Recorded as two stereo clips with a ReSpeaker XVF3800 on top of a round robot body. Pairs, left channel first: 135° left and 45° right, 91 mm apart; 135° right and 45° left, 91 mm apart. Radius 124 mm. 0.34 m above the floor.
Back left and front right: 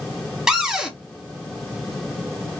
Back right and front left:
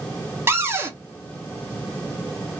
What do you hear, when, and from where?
0.5 s a cupboard door: 30° left, 1.1 m